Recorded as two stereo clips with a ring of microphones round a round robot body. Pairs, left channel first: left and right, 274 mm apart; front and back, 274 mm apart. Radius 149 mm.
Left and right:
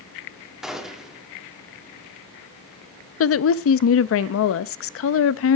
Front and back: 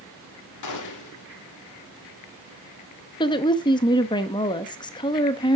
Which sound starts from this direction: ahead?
A gunshot, at 0.6 s.